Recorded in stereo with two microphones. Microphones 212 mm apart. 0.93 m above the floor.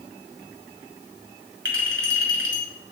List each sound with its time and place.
1.6 s a clink: 70° right (ahead or behind), 2 m